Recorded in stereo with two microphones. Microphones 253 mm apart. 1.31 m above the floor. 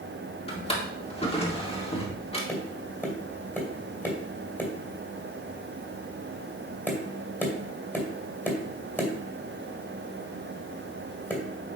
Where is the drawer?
20° left (ahead or behind), 1.6 m.